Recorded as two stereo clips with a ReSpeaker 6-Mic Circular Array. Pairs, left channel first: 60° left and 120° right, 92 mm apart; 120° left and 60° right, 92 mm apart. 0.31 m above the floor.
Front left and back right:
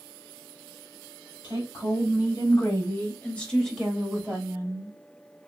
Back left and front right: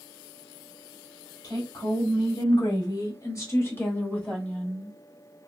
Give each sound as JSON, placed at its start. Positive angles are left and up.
{"t": 1.4, "sound": "a woman speaking", "azimuth_deg": 95, "distance_m": 1.9}